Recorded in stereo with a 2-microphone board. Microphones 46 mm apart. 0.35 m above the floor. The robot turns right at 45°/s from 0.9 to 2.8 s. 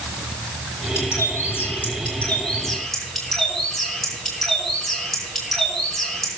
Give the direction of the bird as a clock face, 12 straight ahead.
9 o'clock.